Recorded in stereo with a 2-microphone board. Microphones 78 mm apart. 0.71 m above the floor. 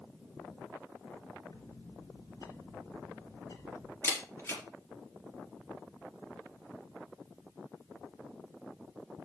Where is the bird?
65° left (ahead or behind), 3 m.